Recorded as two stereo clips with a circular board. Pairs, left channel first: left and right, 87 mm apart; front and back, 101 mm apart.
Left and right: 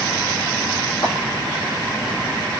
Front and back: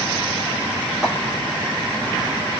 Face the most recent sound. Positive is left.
turn(degrees=90)